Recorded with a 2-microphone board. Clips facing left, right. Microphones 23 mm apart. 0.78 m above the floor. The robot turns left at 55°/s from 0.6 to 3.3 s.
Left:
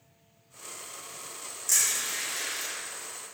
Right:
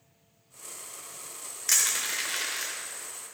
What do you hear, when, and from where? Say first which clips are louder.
1.7 s crushing: right 1 dB; 65° right (ahead or behind), 1.8 m; by 2.7 s 55° right (ahead or behind), 1.8 m